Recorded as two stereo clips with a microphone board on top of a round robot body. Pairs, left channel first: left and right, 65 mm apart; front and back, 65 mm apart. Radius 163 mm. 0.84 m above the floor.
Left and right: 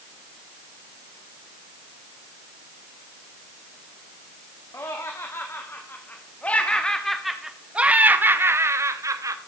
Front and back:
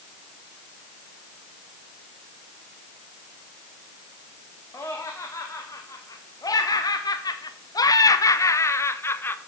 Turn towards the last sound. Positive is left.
turn(degrees=-55)